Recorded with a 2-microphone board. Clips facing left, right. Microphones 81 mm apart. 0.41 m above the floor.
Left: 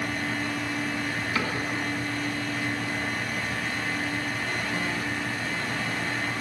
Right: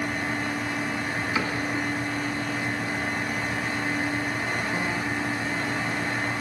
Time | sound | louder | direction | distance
1.4 | a cupboard door | right 1 dB | 10° right (ahead or behind) | 3.5 m